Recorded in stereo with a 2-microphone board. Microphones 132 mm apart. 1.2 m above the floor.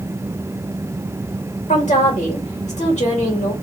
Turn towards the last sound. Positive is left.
turn(degrees=65)  # may be behind; listen again after turning